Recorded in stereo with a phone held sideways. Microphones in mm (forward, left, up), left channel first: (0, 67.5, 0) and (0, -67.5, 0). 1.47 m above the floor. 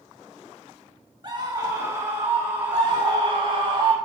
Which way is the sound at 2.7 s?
40° right (ahead or behind).